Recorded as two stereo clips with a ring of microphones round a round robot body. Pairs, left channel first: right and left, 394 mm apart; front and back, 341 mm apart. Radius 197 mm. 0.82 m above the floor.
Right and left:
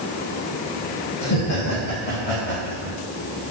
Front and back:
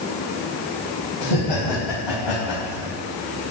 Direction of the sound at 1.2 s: 30° right.